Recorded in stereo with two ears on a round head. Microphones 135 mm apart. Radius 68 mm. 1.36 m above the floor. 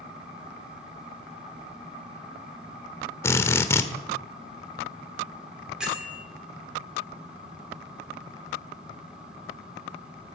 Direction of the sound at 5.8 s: 5° right (ahead or behind).